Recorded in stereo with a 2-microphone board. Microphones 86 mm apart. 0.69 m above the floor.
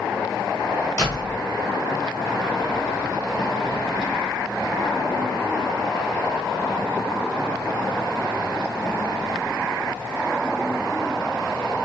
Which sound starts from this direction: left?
A door slam, at 1.0 s.